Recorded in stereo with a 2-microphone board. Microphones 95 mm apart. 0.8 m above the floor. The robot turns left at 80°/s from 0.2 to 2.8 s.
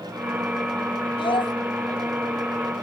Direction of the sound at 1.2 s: 80° left.